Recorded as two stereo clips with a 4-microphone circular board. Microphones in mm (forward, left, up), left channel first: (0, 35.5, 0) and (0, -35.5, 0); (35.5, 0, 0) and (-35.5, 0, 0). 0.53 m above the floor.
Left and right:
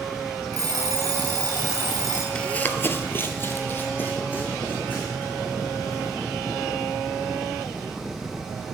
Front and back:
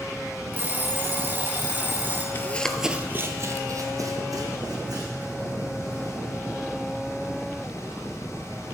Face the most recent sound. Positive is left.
turn(degrees=155)